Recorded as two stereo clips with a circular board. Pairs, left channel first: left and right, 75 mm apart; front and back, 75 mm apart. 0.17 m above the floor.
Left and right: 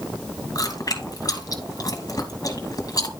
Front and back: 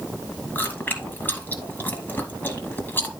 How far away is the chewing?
About 2 m.